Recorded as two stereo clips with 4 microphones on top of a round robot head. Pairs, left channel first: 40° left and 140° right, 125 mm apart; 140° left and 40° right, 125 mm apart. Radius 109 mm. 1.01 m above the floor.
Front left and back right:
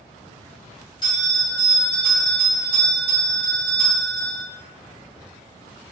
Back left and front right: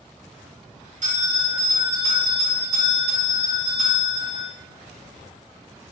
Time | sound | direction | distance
1.0 | a bell | 15° right | 1.4 m